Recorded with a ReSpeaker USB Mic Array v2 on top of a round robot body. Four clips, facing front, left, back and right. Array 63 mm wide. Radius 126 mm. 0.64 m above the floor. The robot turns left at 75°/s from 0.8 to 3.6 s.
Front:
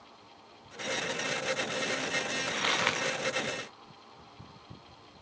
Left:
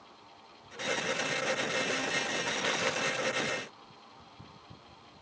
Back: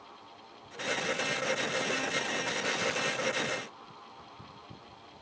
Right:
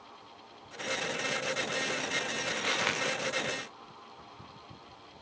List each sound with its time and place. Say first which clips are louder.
2.5 s crumpling: right 2 dB, front 5 dB; 10° left, 8 m; by 3.0 s 25° right, 8 m